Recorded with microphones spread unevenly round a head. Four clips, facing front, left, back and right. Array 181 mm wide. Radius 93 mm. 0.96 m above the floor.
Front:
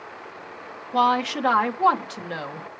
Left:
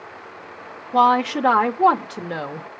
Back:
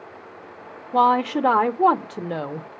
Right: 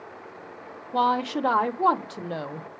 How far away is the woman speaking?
About 0.7 m.